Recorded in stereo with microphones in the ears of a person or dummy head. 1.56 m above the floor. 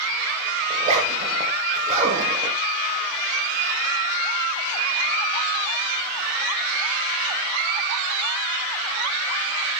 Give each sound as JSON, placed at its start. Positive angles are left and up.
{"t": 0.7, "sound": "a zipper", "side_deg": -35, "distance_m": 6.5}